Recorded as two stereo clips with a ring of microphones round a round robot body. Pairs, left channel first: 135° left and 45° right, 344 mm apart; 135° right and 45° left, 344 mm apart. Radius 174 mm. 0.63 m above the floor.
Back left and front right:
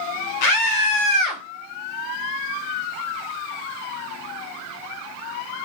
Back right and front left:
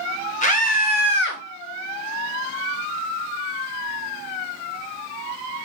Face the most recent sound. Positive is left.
turn(degrees=170)